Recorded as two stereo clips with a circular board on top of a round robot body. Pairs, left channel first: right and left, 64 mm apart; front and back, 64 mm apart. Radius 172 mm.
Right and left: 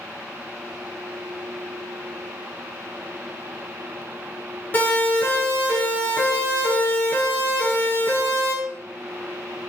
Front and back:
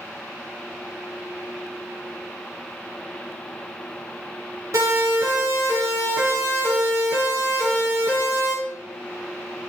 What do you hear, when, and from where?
4.7 s a siren: 150° right, 8 m; by 8.5 s 140° right, 11 m